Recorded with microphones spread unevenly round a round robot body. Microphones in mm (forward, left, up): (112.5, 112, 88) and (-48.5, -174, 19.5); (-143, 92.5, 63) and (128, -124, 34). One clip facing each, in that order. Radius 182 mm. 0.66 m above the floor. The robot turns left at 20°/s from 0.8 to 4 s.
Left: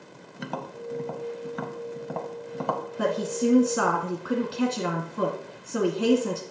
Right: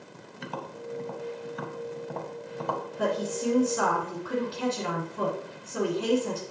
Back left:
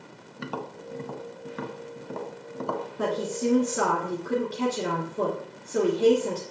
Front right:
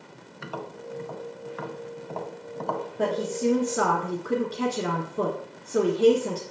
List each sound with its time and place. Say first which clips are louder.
0.4 s tapping: left 3 dB, back left 2 dB; 100° left, 1.0 m; by 2.9 s 60° left, 1.0 m
3.0 s a woman speaking: left 3 dB, front right 2 dB; 65° left, 1.6 m; by 6.4 s 45° left, 1.6 m